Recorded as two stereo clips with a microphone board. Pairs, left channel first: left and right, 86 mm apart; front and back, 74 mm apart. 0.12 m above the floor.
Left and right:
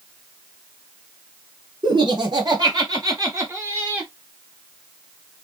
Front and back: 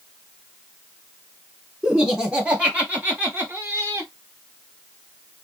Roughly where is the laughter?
Right.